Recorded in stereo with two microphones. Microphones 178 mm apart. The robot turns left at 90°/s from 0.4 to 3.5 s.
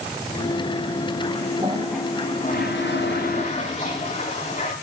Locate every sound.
1.6 s a toilet flushing: 145° right, 6 m; by 4.7 s 45° left, 6 m